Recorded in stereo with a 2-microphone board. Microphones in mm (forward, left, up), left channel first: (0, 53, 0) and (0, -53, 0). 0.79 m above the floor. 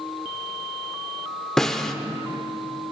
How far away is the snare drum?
About 0.5 m.